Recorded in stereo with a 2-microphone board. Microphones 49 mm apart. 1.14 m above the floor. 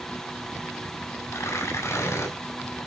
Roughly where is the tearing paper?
Left.